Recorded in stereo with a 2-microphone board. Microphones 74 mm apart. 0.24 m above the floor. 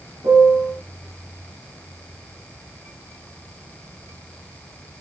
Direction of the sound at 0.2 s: 55° right (ahead or behind).